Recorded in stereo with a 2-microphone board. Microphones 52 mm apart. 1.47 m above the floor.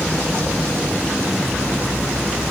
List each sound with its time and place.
Only background noise.